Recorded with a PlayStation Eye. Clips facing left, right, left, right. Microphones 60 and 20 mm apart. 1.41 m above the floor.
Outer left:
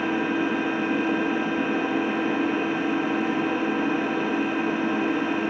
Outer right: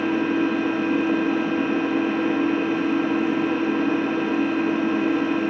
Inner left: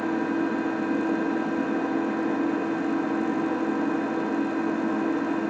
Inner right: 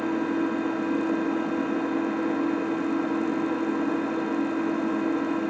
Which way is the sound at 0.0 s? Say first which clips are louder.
Outer right 3 dB, even; 10° left (ahead or behind).